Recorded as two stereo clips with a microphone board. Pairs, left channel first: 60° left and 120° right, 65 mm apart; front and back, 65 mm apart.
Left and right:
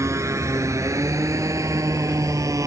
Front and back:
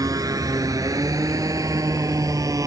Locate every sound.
0.0 s a motorcycle: 160° right; by 2.7 s 150° right